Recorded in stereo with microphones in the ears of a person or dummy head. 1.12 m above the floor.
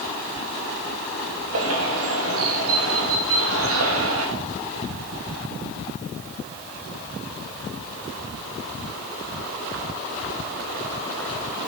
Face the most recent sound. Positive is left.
turn(degrees=-70)  # may be behind; listen again after turning